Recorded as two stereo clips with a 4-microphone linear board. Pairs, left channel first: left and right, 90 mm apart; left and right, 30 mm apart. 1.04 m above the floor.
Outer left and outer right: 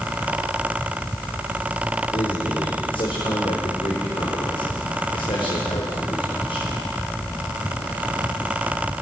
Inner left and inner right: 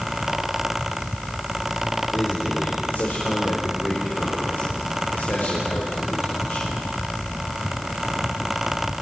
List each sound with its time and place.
2.1 s a man speaking: 80° left, 4.5 m